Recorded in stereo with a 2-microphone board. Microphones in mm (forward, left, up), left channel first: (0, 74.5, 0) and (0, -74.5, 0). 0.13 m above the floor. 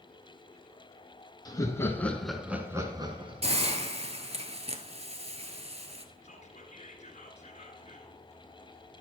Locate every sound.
1.4 s laughter: 25° left (ahead or behind), 1.4 m; by 3.6 s 40° right (ahead or behind), 1.3 m
3.4 s a hiss: 40° right (ahead or behind), 0.8 m
6.2 s whispering: 50° left (ahead or behind), 1.7 m